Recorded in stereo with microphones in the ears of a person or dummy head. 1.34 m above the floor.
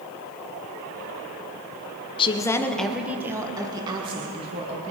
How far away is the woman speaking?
About 0.9 m.